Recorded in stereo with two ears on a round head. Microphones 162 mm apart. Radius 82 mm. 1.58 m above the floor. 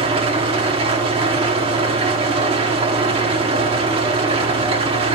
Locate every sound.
0.0 s an engine running: 30° right (ahead or behind), 1.2 m